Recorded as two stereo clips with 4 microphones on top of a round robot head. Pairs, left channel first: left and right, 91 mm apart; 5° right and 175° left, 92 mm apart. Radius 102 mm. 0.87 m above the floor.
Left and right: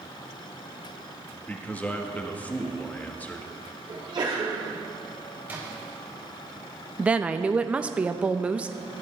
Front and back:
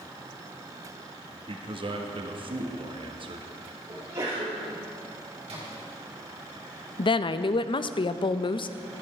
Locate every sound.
1.3 s a man speaking: 165° left, 1.6 m
3.9 s a sneeze: 125° right, 6 m
5.5 s a splash: 155° right, 4.5 m
7.0 s a woman speaking: 15° right, 0.6 m